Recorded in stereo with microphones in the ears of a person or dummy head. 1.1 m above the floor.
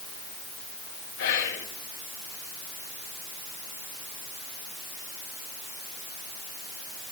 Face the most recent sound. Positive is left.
turn(degrees=70)  # may be behind; listen again after turning